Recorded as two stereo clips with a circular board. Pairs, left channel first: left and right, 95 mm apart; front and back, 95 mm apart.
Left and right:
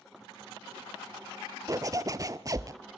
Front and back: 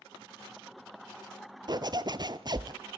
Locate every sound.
1.7 s a zipper: 140° right, 0.7 m